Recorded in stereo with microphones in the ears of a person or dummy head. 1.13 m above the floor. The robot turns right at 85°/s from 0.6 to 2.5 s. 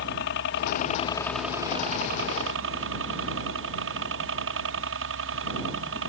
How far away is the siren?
I don't hear a siren.